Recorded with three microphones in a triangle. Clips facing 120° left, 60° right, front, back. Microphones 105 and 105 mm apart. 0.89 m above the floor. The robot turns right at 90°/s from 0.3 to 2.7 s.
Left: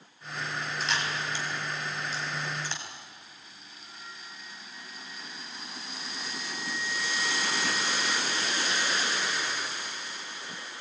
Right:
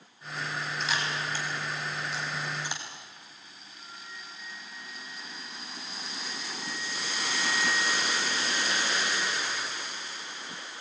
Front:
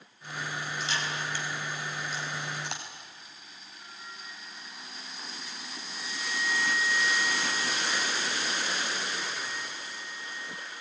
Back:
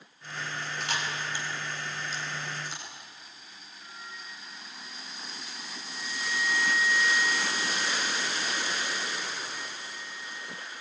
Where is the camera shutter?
155° right, 4.5 m; by 2.8 s 15° left, 4.5 m.